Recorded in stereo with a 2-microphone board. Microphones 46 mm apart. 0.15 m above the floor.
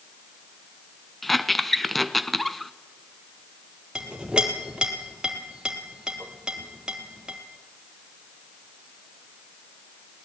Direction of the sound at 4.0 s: 20° right (ahead or behind).